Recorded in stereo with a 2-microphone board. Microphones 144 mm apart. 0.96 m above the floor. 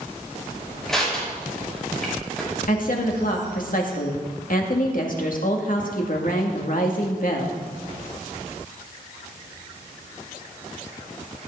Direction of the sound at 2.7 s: 65° left (ahead or behind).